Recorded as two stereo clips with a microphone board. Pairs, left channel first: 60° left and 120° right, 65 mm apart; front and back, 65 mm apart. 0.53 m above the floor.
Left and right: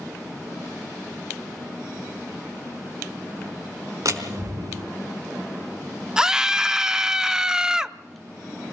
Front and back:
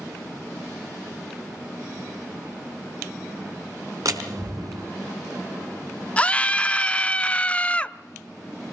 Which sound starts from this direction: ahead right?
A scream, at 6.2 s.